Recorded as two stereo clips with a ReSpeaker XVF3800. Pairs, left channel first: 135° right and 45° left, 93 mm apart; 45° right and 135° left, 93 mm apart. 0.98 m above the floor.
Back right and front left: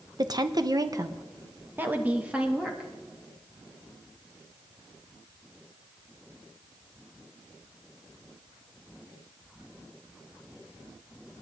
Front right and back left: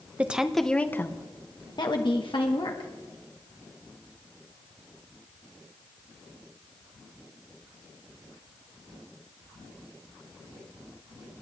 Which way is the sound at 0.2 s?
65° left.